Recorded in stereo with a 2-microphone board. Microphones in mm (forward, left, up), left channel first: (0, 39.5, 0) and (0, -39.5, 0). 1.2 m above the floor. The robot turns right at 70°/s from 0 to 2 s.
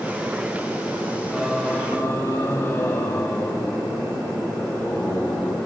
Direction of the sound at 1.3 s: 15° right.